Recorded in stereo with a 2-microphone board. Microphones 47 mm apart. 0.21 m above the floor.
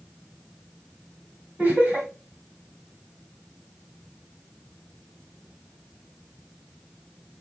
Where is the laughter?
30° right (ahead or behind), 1.9 m.